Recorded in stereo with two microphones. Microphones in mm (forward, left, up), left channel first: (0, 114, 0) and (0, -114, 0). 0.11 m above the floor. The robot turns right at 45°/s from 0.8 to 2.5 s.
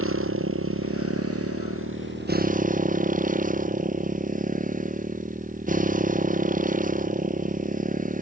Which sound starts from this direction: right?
A motorcycle, at 0.0 s.